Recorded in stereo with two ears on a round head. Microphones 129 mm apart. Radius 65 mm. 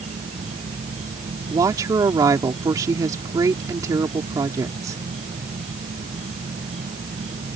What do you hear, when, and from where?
0.0 s an insect: 50° right (ahead or behind)
1.5 s a woman speaking: 25° right (ahead or behind)